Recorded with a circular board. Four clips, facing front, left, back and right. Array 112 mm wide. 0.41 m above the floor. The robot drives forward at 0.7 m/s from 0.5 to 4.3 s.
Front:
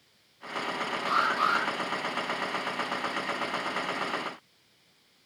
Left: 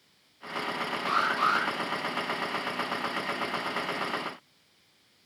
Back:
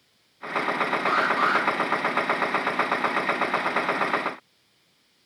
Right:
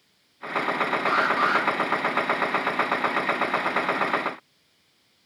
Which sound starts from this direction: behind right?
An alarm, at 1.1 s.